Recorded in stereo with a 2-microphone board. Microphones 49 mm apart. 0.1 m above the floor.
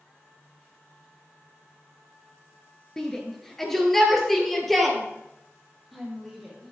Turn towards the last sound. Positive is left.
turn(degrees=0)  # may be behind; listen again after turning